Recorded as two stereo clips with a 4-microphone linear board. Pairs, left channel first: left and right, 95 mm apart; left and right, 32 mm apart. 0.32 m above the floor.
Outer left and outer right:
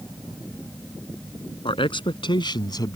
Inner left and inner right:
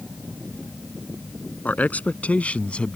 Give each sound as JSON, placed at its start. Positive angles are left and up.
{"t": 1.6, "sound": "a man speaking", "side_deg": 70}